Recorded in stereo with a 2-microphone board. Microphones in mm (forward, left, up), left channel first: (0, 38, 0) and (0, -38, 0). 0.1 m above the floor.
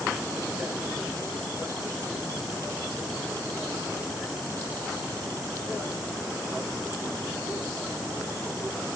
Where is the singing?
No singing in this recording.